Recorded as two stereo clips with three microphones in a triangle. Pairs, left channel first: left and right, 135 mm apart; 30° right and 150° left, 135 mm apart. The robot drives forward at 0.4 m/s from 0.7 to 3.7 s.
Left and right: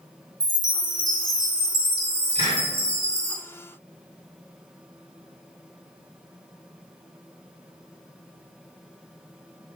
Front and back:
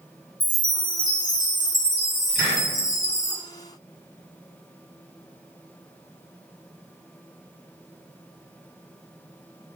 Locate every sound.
0.4 s a chime: 30° right, 1.7 m; by 3.4 s 65° right, 0.9 m
2.4 s a hiss: 135° right, 1.8 m; by 2.6 s 140° right, 1.8 m